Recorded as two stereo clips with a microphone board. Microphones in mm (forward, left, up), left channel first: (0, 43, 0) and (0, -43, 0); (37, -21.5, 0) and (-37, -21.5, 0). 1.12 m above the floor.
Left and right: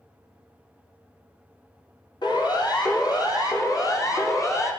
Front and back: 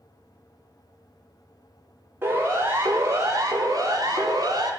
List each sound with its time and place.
2.2 s a siren: 120° left, 4 m; by 4.7 s 145° left, 4.5 m